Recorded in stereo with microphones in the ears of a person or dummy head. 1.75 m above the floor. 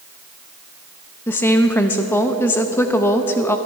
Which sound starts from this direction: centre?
A woman speaking, at 1.3 s.